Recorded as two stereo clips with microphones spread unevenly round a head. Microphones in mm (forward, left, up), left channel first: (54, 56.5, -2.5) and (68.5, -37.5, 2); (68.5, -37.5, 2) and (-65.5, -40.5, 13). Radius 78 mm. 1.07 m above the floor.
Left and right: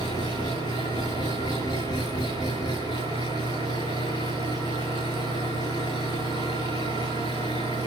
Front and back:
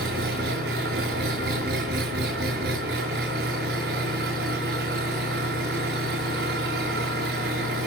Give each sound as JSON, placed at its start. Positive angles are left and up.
{"t": 0.0, "sound": "an engine running", "azimuth_deg": 165, "distance_m": 7.0}